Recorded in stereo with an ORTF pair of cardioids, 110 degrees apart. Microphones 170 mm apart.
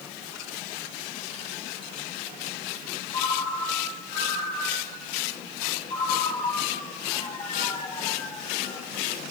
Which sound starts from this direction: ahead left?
A ringtone, at 3.1 s.